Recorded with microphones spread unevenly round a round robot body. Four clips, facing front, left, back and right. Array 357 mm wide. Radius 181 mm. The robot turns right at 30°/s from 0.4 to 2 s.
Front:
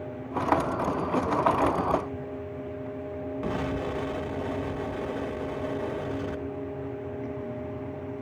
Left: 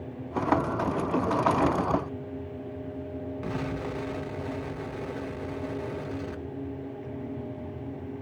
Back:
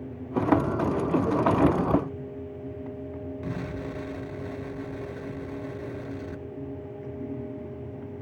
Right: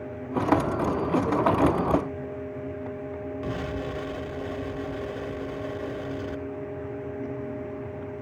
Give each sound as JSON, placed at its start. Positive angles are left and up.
{"t": 3.4, "sound": "an explosion", "azimuth_deg": 15, "distance_m": 1.8}